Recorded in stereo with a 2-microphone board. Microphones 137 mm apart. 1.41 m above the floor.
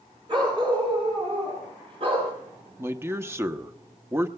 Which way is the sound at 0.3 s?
40° right (ahead or behind).